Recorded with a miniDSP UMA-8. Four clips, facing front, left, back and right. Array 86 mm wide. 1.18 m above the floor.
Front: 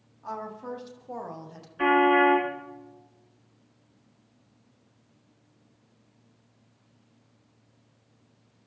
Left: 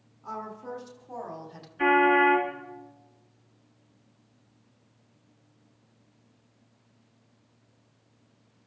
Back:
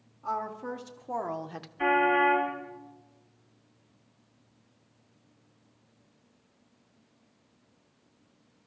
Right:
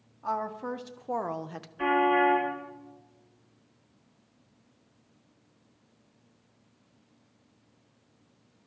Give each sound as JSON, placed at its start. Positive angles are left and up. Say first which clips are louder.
{"t": 0.2, "sound": "a woman speaking", "louder": "right 6 dB, back 3 dB", "azimuth_deg": -90, "distance_m": 1.9}
{"t": 1.8, "sound": "a car horn", "louder": "left 3 dB, front 4 dB", "azimuth_deg": -5, "distance_m": 8.0}